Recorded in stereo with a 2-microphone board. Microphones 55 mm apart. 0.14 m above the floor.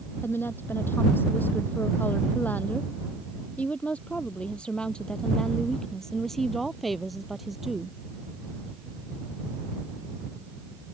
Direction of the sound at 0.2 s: 45° left (ahead or behind).